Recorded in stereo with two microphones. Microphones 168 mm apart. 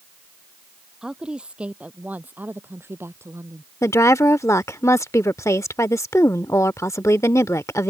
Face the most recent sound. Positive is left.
turn(degrees=20)  # may be behind; listen again after turning